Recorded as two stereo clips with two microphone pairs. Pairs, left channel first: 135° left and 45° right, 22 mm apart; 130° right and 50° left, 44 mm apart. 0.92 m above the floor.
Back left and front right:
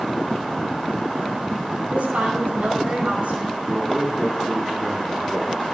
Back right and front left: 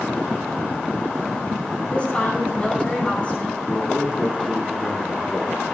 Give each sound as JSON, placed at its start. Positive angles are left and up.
{"t": 1.9, "sound": "a woman speaking", "azimuth_deg": -65, "distance_m": 5.5}
{"t": 3.7, "sound": "a man speaking", "azimuth_deg": -120, "distance_m": 9.0}